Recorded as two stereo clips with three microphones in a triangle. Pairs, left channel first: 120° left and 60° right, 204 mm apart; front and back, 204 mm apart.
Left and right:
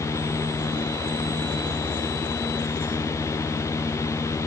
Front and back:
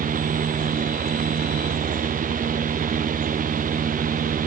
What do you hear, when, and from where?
Only background noise.